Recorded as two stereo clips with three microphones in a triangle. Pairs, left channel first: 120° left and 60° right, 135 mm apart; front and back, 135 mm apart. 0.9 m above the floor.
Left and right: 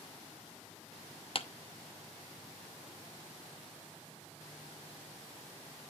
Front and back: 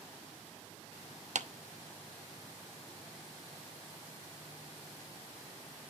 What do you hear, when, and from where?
1.4 s a clap: 160° left, 0.8 m